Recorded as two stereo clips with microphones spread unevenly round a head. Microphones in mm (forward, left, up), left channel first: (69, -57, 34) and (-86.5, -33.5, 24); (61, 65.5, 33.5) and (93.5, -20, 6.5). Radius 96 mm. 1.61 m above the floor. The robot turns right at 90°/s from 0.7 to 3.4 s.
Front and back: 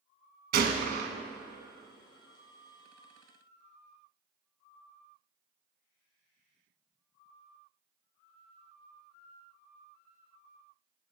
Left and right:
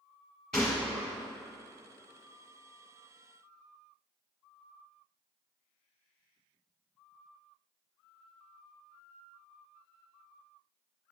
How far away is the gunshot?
About 1.0 m.